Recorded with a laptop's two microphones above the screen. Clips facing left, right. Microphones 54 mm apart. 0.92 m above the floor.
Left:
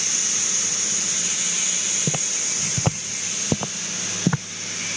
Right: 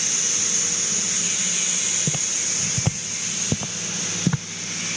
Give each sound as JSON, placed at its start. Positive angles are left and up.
{"t": 2.1, "sound": "footsteps", "side_deg": 25}